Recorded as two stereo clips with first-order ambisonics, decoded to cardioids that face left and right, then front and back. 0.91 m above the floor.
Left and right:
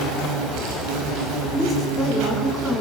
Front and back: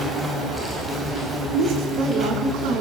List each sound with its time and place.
0.0 s an insect: 100° right, 6 m
1.5 s a woman speaking: 175° right, 9 m